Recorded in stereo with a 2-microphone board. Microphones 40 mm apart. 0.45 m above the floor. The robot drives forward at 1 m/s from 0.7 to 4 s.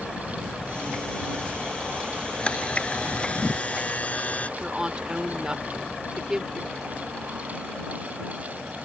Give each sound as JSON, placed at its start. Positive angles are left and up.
{"t": 2.4, "sound": "a camera shutter", "side_deg": 30}
{"t": 4.6, "sound": "a woman speaking", "side_deg": -25}